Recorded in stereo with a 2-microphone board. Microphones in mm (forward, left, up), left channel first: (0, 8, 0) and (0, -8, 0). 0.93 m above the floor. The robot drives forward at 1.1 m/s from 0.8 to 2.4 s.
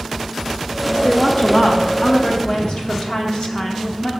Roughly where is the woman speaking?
Left.